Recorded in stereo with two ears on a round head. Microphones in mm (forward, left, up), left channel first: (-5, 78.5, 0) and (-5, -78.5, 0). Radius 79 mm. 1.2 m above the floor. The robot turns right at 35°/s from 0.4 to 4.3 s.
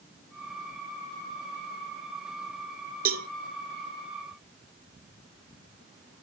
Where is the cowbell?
50° right (ahead or behind), 0.8 m; by 3.3 s 60° right (ahead or behind), 0.8 m.